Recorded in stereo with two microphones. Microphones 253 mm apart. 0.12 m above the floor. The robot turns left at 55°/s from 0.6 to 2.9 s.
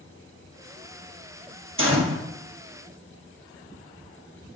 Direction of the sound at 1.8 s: 55° right (ahead or behind).